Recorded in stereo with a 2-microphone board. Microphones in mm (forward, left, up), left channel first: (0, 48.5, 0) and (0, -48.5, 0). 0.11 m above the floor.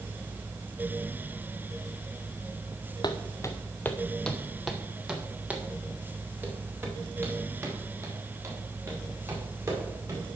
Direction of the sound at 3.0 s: 45° left (ahead or behind).